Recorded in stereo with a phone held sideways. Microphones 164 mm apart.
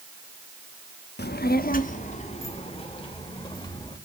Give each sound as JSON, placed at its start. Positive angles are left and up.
{"t": 1.2, "sound": "a child speaking", "side_deg": 80, "distance_m": 0.8}